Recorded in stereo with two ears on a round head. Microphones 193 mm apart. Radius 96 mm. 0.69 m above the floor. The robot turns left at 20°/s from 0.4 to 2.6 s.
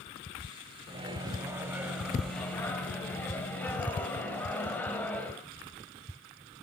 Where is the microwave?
155° right, 3.5 m; by 5.4 s 170° left, 3.5 m.